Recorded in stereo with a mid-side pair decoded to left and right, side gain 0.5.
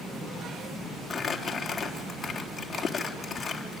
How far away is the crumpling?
About 4 m.